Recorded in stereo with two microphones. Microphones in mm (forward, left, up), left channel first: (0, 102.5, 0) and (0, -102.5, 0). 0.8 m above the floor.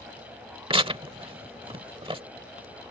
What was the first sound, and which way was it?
Tearing paper, 25° right (ahead or behind).